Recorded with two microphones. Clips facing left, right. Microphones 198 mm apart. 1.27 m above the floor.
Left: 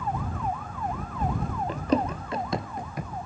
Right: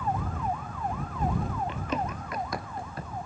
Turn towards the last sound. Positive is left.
turn(degrees=10)  # may be behind; listen again after turning